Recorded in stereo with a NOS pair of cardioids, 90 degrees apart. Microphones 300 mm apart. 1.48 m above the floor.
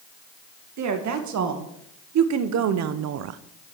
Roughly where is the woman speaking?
Right.